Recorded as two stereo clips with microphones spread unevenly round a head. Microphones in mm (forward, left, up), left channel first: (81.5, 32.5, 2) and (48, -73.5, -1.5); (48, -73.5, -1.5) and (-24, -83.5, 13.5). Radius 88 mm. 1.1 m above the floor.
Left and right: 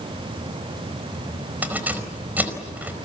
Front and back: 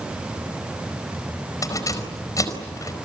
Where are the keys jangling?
35° right, 4.5 m.